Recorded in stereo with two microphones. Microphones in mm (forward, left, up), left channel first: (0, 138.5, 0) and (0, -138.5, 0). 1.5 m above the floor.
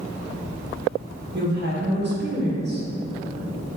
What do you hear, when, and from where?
1.3 s a woman speaking: 40° right (ahead or behind), 0.9 m